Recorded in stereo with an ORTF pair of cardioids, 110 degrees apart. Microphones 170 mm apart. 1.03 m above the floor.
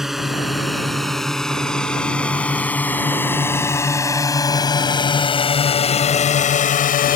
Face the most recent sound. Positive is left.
turn(degrees=60)